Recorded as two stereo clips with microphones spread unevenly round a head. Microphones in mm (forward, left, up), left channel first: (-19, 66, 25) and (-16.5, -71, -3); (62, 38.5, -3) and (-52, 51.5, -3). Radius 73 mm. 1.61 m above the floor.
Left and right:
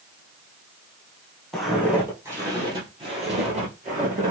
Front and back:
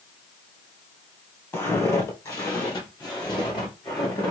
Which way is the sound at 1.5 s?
30° left.